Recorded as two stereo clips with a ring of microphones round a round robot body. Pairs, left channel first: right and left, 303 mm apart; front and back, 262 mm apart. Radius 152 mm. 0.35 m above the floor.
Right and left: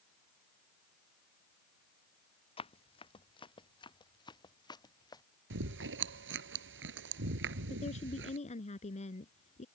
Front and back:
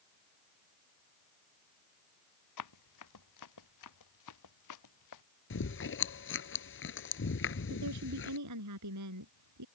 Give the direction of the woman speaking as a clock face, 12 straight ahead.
5 o'clock.